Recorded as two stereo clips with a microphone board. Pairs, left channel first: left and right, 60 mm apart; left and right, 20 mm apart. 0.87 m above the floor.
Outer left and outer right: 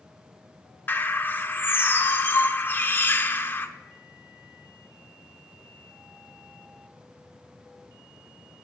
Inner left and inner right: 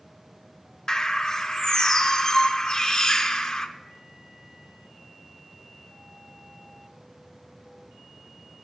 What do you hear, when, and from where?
0.9 s a bird: 35° left (ahead or behind), 0.5 m